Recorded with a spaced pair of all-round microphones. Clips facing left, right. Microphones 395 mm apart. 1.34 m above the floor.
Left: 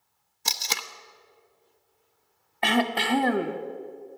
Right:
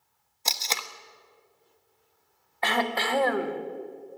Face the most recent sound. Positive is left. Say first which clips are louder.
# left 4 dB
turn(degrees=45)  # may be behind; listen again after turning